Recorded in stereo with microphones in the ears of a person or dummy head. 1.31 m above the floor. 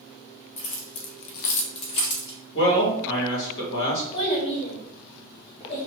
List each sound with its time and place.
0.6 s keys jangling: 40° left (ahead or behind), 0.7 m; by 2.4 s 20° left (ahead or behind), 1.1 m
2.5 s a man speaking: 80° left, 1.4 m
4.1 s a child speaking: 30° left (ahead or behind), 0.7 m